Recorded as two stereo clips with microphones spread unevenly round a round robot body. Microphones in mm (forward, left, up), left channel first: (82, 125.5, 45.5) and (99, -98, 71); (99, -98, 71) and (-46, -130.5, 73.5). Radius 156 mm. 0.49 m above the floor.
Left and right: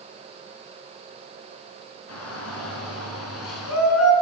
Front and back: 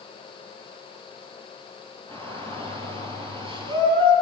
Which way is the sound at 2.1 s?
90° left.